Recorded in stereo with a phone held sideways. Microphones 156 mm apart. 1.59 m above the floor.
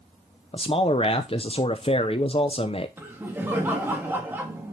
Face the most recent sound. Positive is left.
turn(degrees=-15)  # may be behind; listen again after turning